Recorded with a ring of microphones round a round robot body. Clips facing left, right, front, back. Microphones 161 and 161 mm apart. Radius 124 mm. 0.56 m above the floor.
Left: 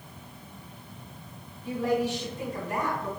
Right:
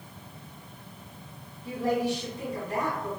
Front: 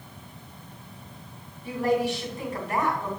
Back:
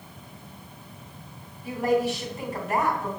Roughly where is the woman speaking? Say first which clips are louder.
Even, back 1 dB; behind left.